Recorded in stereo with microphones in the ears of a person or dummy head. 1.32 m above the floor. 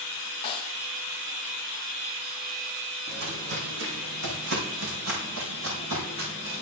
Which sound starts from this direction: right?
Footsteps, at 3.1 s.